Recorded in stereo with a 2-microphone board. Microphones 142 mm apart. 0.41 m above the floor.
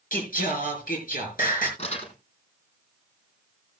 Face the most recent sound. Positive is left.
turn(degrees=50)  # may be behind; listen again after turning